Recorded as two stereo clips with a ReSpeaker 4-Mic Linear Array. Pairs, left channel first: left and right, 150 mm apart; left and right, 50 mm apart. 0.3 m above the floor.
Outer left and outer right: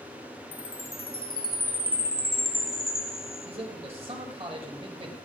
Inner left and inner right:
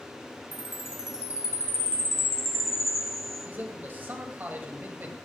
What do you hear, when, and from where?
0.5 s a chime: 75° left (ahead or behind), 0.7 m
3.5 s a man speaking: 40° right (ahead or behind), 1.1 m